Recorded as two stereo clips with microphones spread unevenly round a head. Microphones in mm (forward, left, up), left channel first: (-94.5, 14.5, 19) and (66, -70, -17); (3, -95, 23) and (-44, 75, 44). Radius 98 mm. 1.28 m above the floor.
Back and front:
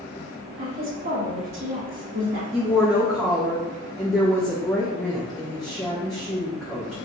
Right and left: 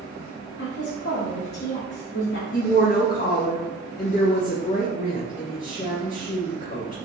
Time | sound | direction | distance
0.6 | a woman speaking | 45° right | 1.4 m
2.5 | a woman speaking | 120° right | 0.9 m